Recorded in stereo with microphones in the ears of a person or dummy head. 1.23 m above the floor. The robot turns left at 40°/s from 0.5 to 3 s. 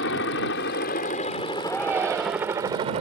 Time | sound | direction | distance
0.0 | a helicopter | 65° left (ahead or behind) | ?
1.6 | a shout | 5° left | ?